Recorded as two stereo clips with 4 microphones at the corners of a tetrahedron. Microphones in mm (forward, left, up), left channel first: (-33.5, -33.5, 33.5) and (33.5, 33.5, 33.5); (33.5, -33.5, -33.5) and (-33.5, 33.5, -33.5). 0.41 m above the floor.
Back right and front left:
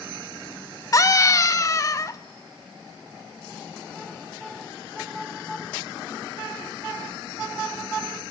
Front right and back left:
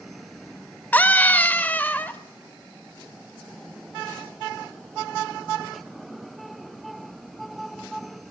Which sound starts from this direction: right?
A scream, at 0.9 s.